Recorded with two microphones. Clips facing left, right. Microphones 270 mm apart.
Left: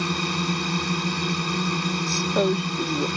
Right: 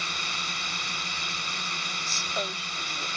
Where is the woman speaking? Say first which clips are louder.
Left 15 dB; 60° left (ahead or behind).